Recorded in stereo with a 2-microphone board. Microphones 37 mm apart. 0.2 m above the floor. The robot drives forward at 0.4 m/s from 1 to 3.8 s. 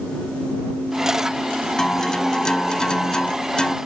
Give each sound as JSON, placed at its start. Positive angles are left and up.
{"t": 1.8, "sound": "a guitar", "side_deg": 15}